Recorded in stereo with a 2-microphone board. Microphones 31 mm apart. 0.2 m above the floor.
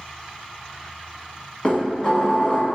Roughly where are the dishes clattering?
Left.